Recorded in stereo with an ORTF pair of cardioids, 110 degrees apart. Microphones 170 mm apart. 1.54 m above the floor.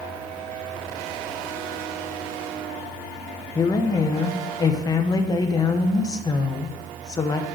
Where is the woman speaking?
25° left, 0.9 m.